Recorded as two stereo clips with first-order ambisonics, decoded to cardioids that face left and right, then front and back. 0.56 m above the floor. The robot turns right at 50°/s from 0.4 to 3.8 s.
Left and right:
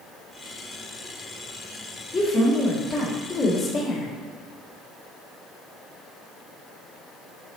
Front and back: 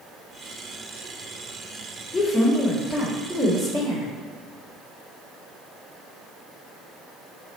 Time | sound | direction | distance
2.1 | a woman speaking | 75° left | 1.0 m